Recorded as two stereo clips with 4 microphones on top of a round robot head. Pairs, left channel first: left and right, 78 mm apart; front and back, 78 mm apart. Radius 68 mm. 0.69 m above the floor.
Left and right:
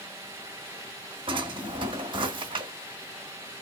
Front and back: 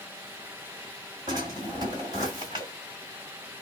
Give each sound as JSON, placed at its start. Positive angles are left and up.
{"t": 1.3, "sound": "a drawer", "azimuth_deg": -125, "distance_m": 2.0}